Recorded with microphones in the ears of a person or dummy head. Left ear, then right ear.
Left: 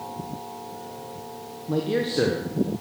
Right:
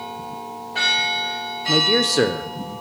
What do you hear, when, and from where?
1.7 s a man speaking: 80° right, 0.9 m